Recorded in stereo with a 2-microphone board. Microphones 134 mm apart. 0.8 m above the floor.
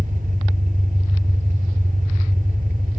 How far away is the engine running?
About 2 m.